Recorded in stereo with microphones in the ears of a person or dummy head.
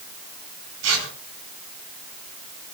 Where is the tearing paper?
85° right, 8 m.